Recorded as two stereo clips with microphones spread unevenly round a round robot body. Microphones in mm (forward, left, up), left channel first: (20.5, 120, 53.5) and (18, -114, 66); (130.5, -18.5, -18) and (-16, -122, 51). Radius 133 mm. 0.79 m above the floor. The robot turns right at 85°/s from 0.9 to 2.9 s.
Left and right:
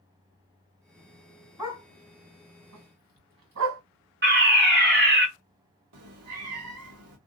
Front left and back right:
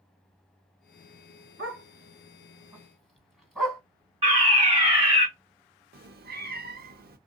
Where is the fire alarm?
75° right, 2 m.